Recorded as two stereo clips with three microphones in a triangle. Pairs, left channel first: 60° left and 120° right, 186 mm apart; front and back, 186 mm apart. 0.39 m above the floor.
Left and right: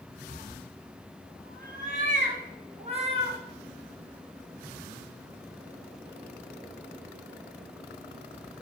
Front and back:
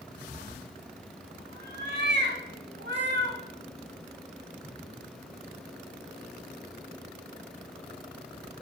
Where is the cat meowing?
135° right, 2 m; by 3.4 s straight behind, 2.5 m.